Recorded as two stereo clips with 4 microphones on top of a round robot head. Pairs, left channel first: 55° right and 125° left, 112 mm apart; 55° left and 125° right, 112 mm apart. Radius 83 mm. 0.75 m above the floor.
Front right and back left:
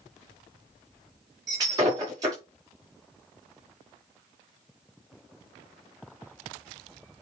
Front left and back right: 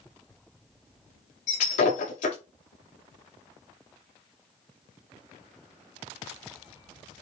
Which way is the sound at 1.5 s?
65° left.